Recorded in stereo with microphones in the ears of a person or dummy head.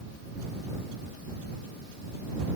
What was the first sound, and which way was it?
Only background noise.